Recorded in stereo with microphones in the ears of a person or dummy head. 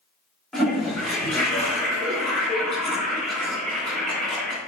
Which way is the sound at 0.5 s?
5° left (ahead or behind).